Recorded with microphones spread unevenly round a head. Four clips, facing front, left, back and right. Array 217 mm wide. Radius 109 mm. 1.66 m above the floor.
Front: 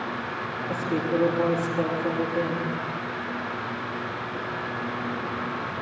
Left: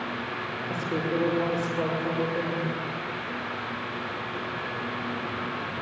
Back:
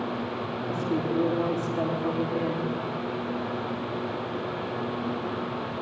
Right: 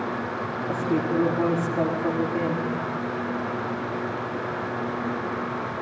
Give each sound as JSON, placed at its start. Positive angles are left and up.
{"t": 0.7, "sound": "a woman speaking", "azimuth_deg": -110, "distance_m": 4.0}